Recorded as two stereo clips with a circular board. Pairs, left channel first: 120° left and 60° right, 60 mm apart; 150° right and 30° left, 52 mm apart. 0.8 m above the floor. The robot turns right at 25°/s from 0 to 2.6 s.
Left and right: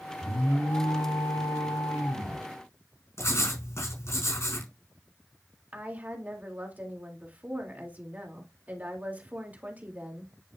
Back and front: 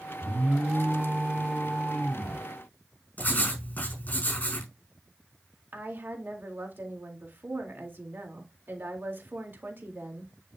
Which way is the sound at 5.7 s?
5° right.